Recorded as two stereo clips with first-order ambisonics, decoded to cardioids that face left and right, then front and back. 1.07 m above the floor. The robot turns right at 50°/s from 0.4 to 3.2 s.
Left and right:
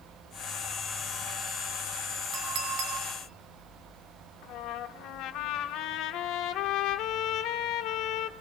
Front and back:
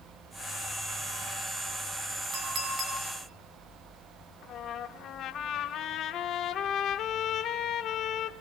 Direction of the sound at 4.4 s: 55° left.